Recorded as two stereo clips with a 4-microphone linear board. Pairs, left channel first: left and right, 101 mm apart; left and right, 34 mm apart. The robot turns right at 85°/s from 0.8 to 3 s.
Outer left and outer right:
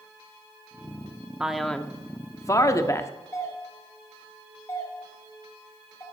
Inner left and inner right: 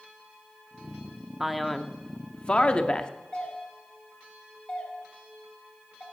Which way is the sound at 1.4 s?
15° right.